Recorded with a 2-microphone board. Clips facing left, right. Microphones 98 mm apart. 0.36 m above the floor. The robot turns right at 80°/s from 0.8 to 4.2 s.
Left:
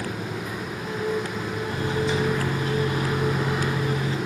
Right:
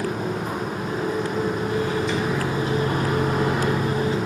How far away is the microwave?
About 2 m.